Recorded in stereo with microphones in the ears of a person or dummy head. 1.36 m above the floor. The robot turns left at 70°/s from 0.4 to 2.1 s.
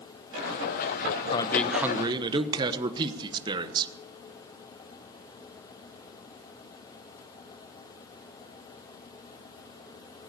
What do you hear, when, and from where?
1.3 s a man speaking: 30° left, 1.2 m; by 3.9 s 25° right, 1.2 m